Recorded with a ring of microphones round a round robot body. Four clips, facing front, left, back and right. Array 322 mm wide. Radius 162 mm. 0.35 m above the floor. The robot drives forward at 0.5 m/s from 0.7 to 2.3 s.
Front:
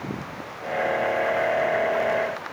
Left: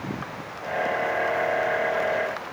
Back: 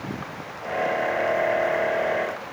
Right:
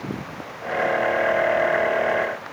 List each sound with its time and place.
Only background noise.